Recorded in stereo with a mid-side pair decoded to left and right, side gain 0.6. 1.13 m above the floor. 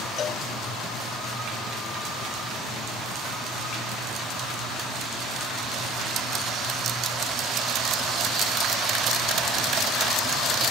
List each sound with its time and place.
0.2 s a cowbell: 45° left